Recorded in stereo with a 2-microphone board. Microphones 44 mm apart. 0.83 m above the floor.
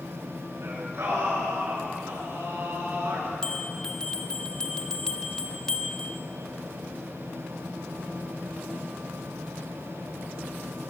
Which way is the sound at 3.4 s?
15° left (ahead or behind).